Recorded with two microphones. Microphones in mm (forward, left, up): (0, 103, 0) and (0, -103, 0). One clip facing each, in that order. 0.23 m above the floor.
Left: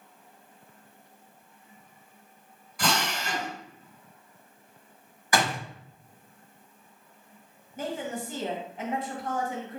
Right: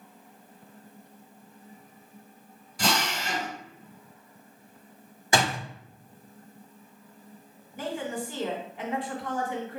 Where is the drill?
25° right (ahead or behind), 1.8 m.